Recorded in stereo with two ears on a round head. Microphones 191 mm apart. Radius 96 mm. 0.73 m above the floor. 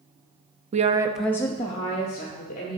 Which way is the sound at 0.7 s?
35° right (ahead or behind).